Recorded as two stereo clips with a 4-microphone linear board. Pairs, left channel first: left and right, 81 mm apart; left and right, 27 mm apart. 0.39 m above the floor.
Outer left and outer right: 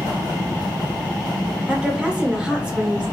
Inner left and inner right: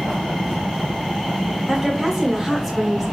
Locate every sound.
1.7 s a woman speaking: 10° right (ahead or behind), 1.0 m